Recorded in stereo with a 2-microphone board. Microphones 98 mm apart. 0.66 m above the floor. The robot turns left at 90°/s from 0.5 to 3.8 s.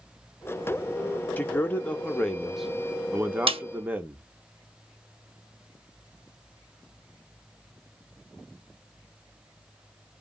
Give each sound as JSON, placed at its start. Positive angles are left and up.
{"t": 1.4, "sound": "a man speaking", "side_deg": 20, "distance_m": 0.7}
{"t": 3.5, "sound": "a snare drum", "side_deg": -65, "distance_m": 0.6}